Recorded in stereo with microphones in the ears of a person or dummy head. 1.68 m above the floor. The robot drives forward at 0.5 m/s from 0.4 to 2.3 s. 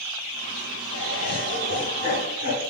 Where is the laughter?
65° left (ahead or behind), 1.6 m; by 2.6 s 45° left (ahead or behind), 2.0 m.